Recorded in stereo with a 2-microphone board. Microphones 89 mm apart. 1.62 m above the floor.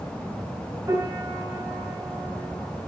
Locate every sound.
0.9 s a piano: 45° right (ahead or behind), 6 m